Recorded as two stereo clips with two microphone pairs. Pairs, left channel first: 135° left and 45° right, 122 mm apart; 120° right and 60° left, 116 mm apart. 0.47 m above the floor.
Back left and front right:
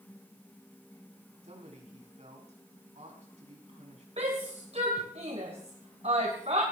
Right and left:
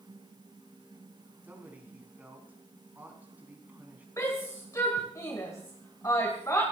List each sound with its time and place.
1.4 s a man speaking: 15° right, 5 m
4.2 s a shout: 60° right, 2.5 m